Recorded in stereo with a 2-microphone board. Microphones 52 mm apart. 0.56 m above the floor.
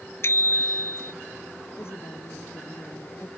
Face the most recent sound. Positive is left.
turn(degrees=50)  # may be behind; listen again after turning